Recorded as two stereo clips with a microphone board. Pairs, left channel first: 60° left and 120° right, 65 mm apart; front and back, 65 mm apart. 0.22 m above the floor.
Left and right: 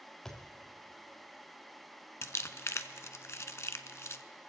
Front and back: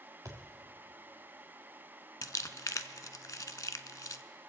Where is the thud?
145° left, 2.0 m.